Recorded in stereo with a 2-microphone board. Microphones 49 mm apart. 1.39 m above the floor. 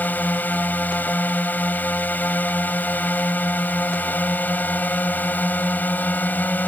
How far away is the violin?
I don't hear a violin.